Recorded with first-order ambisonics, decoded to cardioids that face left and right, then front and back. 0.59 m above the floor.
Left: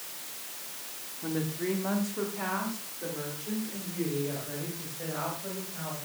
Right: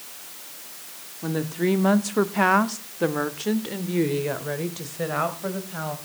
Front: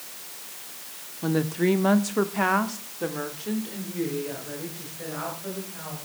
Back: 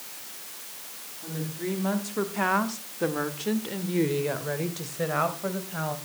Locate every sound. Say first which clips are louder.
1.2 s a woman speaking: right 7 dB, front 10 dB; 25° right, 1.4 m; by 6.0 s 135° right, 3.5 m